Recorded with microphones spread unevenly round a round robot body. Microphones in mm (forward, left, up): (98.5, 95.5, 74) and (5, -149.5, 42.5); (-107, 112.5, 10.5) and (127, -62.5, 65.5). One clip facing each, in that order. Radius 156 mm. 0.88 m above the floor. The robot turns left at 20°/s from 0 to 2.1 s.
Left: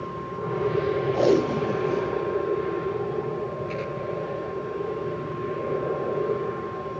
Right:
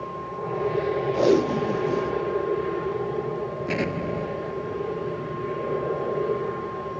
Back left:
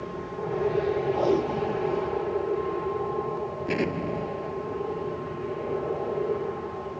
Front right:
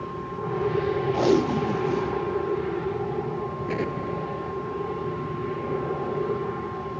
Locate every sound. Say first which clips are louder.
0.0 s an aircraft: left 1 dB, even; 20° left; by 7.0 s 20° right
1.1 s tape being pulled: right 2 dB, front right 3 dB; 40° right; by 2.2 s 60° right
3.7 s an explosion: right 3 dB, back left 2 dB; 145° right